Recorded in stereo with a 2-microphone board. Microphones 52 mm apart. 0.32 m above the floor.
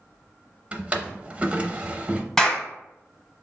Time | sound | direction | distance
0.7 | a drawer | 20° right (ahead or behind) | 0.5 m
2.4 | a clap | 10° left (ahead or behind) | 1.2 m